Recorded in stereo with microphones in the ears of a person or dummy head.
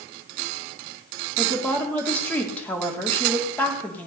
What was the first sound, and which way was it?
A woman speaking, 10° left (ahead or behind).